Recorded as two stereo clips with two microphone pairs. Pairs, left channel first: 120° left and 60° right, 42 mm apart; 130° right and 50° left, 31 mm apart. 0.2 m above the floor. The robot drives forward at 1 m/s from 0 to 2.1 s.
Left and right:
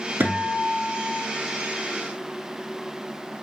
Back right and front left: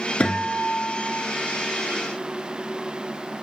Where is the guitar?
85° right, 1.1 m; by 1.2 s 135° right, 1.5 m.